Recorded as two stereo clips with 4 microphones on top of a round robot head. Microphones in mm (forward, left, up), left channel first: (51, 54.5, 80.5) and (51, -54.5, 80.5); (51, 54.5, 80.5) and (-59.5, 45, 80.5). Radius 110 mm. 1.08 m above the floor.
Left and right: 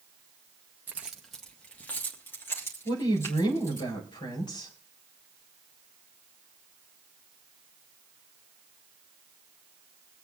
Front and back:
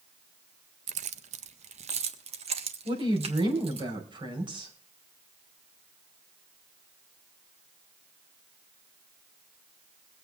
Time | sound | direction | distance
0.9 | keys jangling | 165° right | 0.6 m
2.9 | a woman speaking | 145° left | 4.5 m